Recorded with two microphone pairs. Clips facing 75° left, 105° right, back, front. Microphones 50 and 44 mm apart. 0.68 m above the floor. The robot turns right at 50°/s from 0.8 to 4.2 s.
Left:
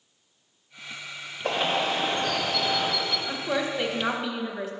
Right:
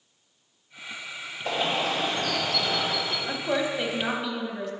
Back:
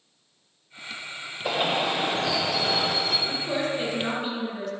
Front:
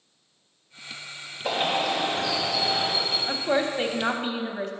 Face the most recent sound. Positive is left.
turn(degrees=0)